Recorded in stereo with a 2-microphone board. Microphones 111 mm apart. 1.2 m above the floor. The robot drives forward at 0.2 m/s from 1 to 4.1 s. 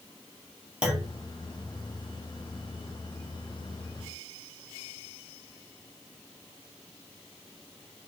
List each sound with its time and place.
0.8 s a clunk: 10° right (ahead or behind), 3 m